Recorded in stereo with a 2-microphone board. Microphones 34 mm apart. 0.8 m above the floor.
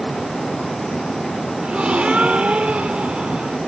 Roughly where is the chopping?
I don't hear chopping.